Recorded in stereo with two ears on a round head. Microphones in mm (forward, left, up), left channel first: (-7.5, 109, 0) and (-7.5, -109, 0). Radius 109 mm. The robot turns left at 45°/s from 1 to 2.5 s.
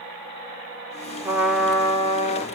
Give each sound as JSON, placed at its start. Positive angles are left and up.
{"t": 1.2, "sound": "a trumpet", "azimuth_deg": -165, "distance_m": 1.9}